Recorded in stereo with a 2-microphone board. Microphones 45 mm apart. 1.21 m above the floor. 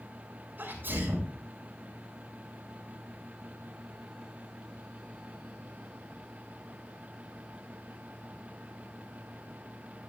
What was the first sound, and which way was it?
A sneeze, 45° right (ahead or behind).